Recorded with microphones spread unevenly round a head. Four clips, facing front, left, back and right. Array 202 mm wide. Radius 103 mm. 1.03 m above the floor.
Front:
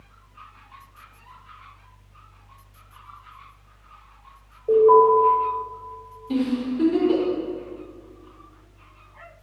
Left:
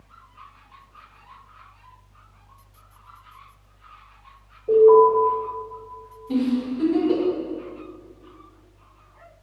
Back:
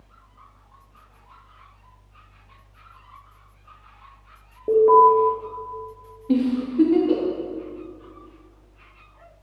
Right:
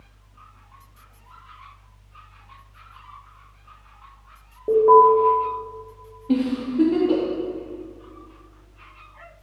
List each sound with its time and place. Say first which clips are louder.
4.7 s an alarm: even, even; 145° right, 1.9 m
6.3 s a giggle: right 1 dB, back 2 dB; 140° right, 1.9 m